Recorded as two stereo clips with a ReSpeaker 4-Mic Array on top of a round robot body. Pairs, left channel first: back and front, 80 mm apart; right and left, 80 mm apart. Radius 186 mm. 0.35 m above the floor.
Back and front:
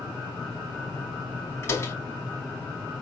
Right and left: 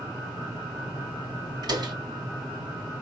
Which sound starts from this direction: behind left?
A door slam, at 1.6 s.